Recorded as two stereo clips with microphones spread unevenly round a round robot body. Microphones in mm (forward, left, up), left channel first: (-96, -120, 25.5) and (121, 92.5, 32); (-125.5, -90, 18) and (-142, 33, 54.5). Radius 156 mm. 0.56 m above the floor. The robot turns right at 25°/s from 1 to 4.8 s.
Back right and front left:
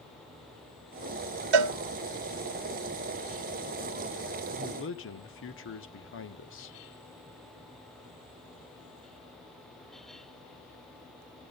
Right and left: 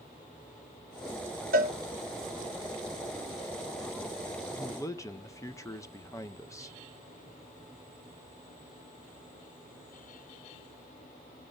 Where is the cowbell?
55° left, 0.7 m; by 1.8 s 60° left, 0.7 m.